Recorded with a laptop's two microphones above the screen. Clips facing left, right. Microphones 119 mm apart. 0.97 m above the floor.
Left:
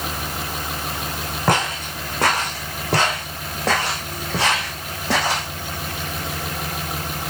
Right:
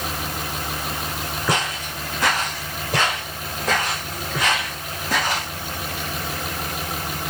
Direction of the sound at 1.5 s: 65° left (ahead or behind).